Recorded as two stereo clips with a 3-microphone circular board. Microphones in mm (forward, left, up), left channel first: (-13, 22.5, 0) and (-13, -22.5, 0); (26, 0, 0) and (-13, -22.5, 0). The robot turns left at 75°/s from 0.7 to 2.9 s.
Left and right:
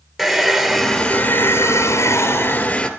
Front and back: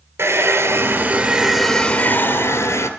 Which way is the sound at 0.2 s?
Straight behind.